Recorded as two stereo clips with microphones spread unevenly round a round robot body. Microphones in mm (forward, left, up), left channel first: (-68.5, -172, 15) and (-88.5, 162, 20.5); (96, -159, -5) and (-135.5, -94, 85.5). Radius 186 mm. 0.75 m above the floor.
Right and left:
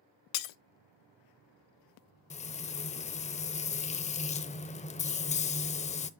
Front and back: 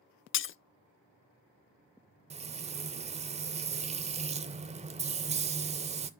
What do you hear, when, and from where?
0.3 s breaking glass: 65° right, 0.5 m
2.3 s frying: 155° right, 0.6 m